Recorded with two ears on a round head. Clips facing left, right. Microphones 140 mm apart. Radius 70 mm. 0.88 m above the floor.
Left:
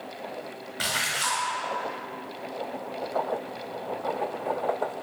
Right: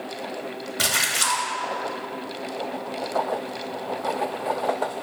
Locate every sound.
0.8 s a splash: 55° right (ahead or behind), 1.1 m